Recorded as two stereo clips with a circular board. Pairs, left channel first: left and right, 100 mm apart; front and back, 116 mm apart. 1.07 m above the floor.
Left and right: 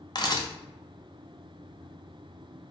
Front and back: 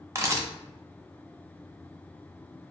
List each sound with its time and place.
0.1 s a camera shutter: 120° left, 0.9 m